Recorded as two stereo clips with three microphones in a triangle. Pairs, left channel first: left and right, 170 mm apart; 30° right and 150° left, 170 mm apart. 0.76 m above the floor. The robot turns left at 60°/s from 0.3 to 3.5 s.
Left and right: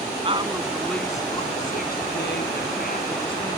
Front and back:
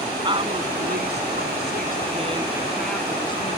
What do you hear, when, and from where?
0.2 s a woman speaking: 145° right; by 3.6 s 20° left